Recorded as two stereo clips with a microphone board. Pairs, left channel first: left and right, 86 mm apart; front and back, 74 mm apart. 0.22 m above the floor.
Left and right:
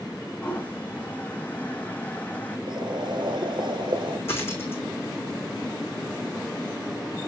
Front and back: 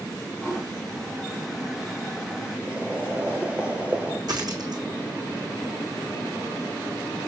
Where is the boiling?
105° right, 1.1 m.